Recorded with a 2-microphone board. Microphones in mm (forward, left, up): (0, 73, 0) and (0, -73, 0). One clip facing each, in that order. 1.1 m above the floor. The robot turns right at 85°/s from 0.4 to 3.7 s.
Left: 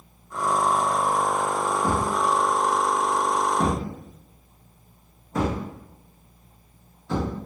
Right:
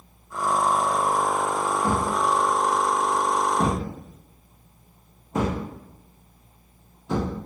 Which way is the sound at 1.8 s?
10° left (ahead or behind).